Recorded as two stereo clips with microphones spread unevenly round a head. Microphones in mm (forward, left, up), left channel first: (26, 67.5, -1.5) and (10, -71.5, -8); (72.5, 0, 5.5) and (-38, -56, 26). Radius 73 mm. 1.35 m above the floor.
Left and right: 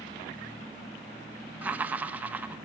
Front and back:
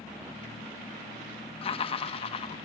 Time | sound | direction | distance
1.6 | laughter | 20° right | 1.3 m